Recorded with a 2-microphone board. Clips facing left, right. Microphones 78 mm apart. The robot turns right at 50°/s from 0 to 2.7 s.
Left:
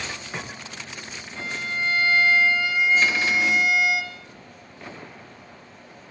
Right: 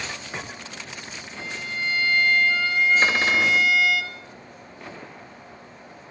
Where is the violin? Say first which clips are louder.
Left 3 dB; 105° left, 1.5 m; by 4.0 s 175° left, 1.5 m.